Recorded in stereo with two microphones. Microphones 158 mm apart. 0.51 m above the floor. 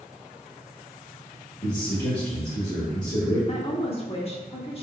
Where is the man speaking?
25° left (ahead or behind), 1.5 m.